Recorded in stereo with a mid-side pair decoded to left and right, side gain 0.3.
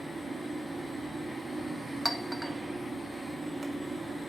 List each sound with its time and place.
0.0 s a fan: 40° right, 1.6 m
2.0 s a clink: 5° right, 0.7 m